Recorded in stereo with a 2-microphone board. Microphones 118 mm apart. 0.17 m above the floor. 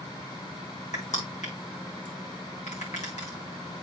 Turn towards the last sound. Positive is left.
turn(degrees=85)